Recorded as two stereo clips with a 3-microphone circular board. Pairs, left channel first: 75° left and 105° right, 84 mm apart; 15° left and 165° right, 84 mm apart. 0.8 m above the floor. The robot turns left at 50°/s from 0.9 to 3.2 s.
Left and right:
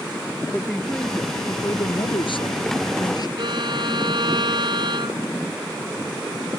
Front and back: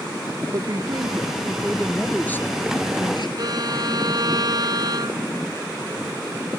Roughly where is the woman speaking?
Behind left.